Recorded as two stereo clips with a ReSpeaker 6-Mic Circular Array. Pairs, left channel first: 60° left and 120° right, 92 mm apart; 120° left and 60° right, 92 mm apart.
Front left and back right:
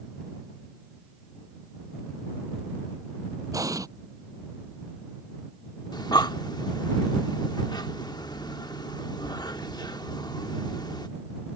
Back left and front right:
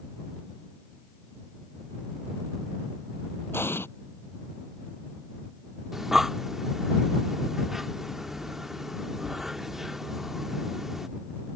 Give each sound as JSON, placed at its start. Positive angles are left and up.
{"t": 3.5, "sound": "an explosion", "azimuth_deg": -175}
{"t": 5.9, "sound": "breathing", "azimuth_deg": 25}